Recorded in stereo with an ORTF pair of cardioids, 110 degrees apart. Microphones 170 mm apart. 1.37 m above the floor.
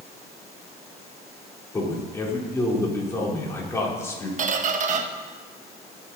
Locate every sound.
1.7 s a man speaking: 15° left, 4 m
4.4 s a squeak: 50° right, 1.1 m